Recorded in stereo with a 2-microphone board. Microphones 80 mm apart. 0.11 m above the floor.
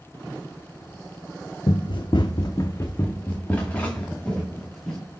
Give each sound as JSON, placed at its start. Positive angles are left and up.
{"t": 1.7, "sound": "running footsteps", "side_deg": 80, "distance_m": 0.6}